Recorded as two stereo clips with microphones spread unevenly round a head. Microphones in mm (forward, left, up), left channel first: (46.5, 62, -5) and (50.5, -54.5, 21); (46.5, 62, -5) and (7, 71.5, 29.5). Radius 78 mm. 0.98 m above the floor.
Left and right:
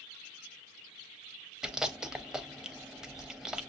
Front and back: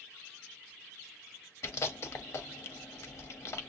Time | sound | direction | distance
1.6 | chewing | 5° right | 0.8 m